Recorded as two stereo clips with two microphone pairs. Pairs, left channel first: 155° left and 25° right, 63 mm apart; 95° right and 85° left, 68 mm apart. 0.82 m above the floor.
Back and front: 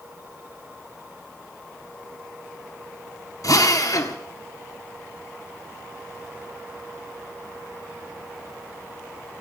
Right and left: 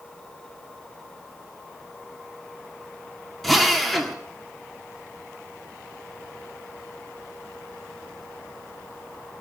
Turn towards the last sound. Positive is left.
turn(degrees=175)